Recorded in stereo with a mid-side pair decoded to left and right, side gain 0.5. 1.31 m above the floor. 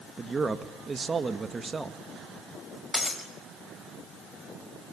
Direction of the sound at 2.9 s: 15° left.